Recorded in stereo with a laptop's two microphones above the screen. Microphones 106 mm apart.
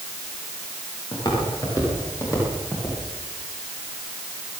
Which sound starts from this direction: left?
Footsteps, at 1.1 s.